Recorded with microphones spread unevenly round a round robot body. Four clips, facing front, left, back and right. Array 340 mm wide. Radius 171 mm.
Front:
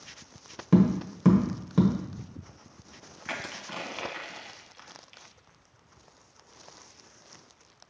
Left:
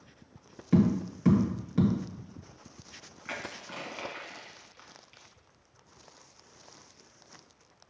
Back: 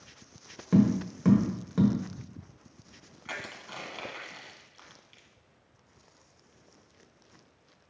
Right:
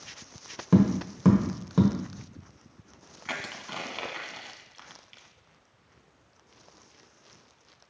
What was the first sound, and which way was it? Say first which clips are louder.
Tapping: right 2 dB, front 1 dB; 60° right.